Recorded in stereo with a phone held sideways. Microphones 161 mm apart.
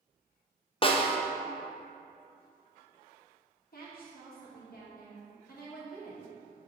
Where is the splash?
I don't hear a splash.